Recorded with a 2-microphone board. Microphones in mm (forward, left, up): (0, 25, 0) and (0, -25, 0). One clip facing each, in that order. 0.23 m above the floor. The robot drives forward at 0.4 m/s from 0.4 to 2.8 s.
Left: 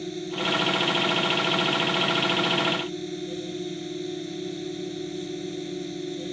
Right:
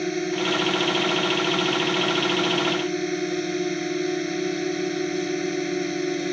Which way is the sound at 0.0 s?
65° right (ahead or behind).